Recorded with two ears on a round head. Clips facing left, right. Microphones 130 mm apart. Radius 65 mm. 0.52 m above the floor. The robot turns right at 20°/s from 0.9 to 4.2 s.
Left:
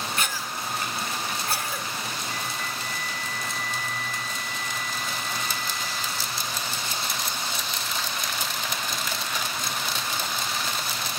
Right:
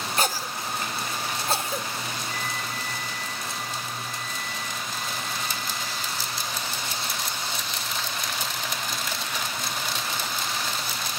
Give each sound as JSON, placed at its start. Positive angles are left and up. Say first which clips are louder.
{"t": 0.2, "sound": "a cough", "louder": "right 3 dB", "side_deg": -30, "distance_m": 1.3}
{"t": 2.3, "sound": "a flute", "louder": "even", "azimuth_deg": -135, "distance_m": 2.0}